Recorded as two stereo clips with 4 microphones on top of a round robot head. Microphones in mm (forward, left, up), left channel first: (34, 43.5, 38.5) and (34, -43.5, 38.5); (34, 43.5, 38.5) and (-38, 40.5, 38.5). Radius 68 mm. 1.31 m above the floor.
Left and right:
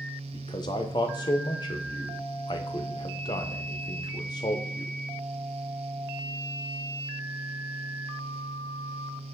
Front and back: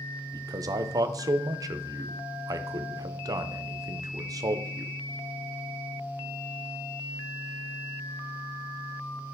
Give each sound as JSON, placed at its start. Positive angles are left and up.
{"t": 0.3, "sound": "a man speaking", "azimuth_deg": 140, "distance_m": 0.6}